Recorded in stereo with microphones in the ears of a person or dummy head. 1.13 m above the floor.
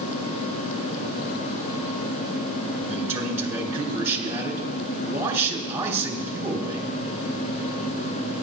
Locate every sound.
2.9 s a man speaking: 15° right (ahead or behind), 4.5 m